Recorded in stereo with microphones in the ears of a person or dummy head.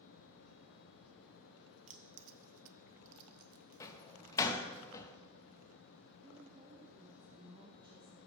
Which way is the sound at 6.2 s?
25° right (ahead or behind).